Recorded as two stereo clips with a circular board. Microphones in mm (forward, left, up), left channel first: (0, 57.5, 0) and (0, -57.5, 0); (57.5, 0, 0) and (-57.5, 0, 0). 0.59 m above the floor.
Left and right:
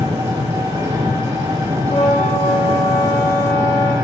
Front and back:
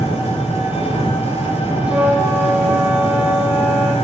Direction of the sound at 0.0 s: 25° right.